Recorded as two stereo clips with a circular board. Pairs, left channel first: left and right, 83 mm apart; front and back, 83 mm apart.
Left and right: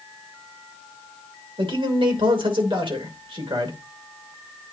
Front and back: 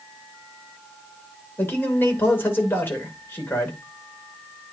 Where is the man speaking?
65° right, 2.5 m.